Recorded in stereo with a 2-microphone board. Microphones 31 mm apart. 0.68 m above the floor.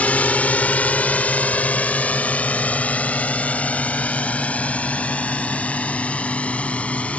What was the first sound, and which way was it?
A drone, 60° left (ahead or behind).